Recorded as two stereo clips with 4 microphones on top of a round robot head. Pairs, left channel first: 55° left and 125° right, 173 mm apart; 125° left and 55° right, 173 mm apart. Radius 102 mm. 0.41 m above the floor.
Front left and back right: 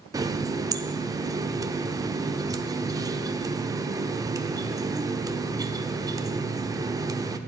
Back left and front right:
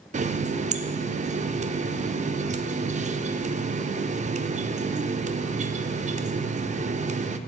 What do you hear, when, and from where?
0.1 s a running tap: 65° right, 0.5 m